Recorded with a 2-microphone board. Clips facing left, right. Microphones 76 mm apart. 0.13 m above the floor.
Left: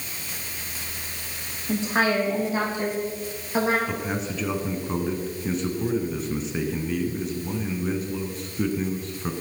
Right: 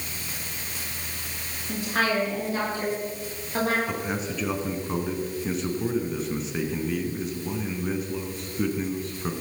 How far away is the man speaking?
About 1.8 m.